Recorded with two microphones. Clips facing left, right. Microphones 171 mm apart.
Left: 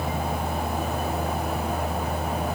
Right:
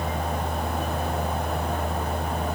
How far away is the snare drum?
I don't hear a snare drum.